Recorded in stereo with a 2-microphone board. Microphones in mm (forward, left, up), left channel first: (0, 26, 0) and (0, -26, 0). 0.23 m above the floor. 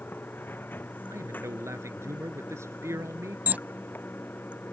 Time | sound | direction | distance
0.0 | running water | 40° left (ahead or behind) | ?
1.1 | a man speaking | 65° right (ahead or behind) | ?
3.5 | an alarm | 30° right (ahead or behind) | ?